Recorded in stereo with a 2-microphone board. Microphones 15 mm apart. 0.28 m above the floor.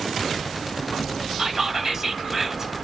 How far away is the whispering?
About 1.1 m.